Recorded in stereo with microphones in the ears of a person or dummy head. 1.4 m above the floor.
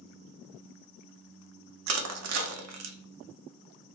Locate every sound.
1.9 s crushing: 75° right (ahead or behind), 0.5 m